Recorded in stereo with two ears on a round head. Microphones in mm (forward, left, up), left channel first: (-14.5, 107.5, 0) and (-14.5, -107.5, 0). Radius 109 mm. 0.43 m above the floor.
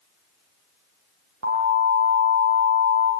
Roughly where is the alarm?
Right.